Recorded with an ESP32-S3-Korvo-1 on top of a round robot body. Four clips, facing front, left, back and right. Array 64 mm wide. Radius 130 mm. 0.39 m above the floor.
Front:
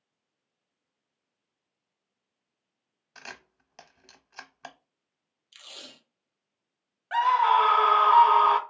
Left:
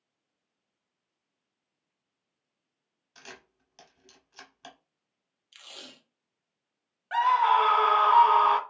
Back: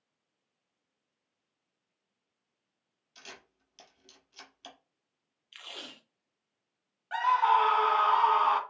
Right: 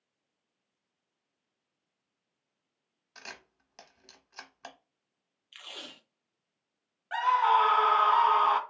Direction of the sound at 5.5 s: 145° right.